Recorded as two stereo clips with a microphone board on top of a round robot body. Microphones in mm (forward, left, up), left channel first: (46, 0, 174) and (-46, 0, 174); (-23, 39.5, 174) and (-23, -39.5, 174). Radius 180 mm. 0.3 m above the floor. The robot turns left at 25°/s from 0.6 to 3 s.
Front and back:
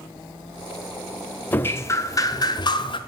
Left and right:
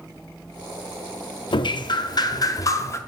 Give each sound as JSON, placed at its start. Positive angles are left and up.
{"t": 1.5, "sound": "dripping", "azimuth_deg": 70, "distance_m": 0.6}